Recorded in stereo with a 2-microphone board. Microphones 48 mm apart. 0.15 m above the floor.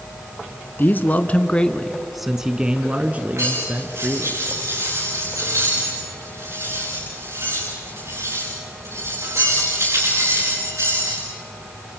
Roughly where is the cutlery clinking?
Right.